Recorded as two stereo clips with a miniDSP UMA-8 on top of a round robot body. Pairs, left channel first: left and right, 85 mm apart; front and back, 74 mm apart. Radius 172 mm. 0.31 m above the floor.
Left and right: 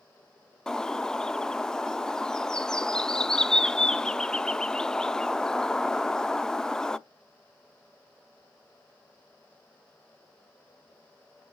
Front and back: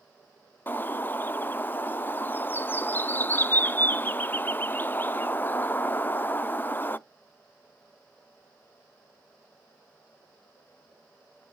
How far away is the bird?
About 0.7 m.